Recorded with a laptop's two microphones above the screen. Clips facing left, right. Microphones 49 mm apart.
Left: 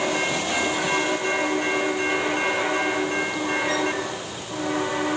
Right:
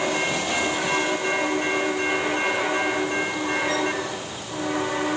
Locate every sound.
Only background noise.